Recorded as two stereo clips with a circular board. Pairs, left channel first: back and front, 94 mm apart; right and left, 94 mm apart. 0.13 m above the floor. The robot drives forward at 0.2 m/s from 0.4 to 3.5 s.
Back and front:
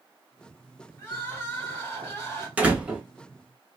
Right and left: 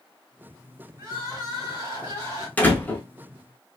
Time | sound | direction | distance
1.0 | crying | 120° left | 2 m
2.6 | a door slam | 45° right | 0.7 m